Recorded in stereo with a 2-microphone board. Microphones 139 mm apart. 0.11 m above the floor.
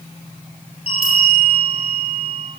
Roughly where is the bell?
Left.